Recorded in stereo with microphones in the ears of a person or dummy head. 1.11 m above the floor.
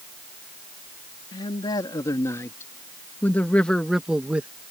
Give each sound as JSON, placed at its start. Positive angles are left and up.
{"t": 1.3, "sound": "a man speaking", "side_deg": 25}